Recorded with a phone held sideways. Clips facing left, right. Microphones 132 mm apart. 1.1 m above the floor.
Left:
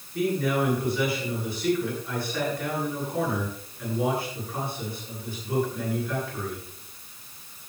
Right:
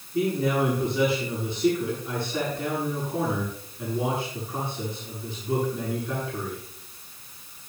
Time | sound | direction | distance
0.1 | a man speaking | 25° right (ahead or behind) | 9.5 m